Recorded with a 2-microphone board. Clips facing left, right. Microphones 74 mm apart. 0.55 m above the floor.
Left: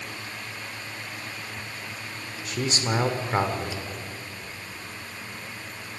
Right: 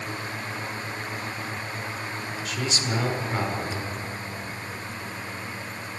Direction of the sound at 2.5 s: 35° left (ahead or behind).